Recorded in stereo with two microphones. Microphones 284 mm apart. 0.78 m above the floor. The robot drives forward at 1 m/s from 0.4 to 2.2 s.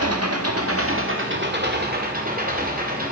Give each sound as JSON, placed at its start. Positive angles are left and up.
{"t": 0.0, "sound": "an engine running", "side_deg": -60, "distance_m": 1.7}